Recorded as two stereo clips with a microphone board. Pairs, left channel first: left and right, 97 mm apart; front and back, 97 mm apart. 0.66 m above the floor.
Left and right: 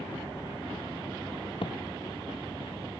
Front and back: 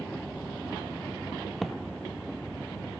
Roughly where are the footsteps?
Left.